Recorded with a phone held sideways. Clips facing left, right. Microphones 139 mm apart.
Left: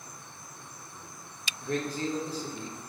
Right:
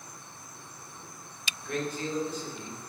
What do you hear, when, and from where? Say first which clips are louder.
1.6 s a man speaking: left 2 dB; 35° left (ahead or behind), 1.0 m